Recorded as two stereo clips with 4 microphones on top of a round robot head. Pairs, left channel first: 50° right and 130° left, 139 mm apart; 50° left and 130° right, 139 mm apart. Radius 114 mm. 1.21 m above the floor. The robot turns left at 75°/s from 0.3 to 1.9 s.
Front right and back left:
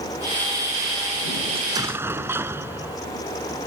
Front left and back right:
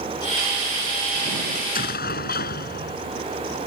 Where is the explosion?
85° left; by 3.1 s 55° left.